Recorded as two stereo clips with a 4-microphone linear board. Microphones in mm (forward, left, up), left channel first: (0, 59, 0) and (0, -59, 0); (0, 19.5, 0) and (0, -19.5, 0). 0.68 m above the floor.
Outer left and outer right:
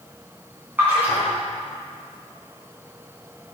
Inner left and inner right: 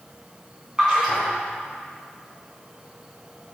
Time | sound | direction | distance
0.8 | a splash | 15° right (ahead or behind) | 3.5 m